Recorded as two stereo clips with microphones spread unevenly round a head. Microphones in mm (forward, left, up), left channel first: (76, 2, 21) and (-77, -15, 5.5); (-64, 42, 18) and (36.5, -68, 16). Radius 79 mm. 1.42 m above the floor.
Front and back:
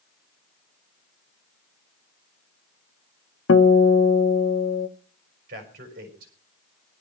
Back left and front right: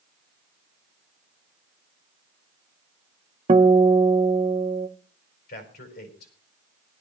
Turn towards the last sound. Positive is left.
turn(degrees=150)